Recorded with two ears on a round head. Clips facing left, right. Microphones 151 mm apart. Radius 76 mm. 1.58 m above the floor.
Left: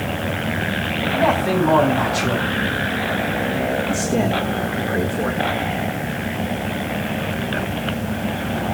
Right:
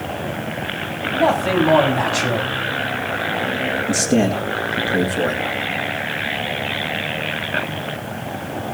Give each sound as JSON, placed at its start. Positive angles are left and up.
{"t": 1.1, "sound": "a man speaking", "side_deg": -35, "distance_m": 9.5}
{"t": 3.9, "sound": "a man speaking", "side_deg": -45, "distance_m": 2.5}